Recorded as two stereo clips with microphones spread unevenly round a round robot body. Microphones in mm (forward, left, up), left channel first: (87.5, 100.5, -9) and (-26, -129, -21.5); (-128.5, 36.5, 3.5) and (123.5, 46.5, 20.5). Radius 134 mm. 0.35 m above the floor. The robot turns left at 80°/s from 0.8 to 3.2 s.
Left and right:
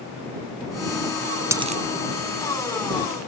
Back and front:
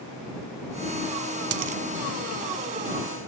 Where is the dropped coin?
35° right; by 1.8 s 60° right.